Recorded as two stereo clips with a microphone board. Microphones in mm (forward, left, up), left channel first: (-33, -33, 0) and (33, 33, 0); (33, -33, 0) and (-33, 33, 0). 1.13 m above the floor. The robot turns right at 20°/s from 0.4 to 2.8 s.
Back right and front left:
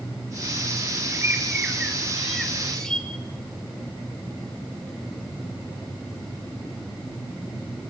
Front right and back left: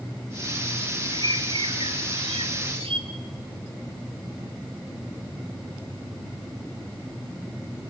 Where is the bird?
110° left, 2 m; by 3.1 s 145° left, 2 m.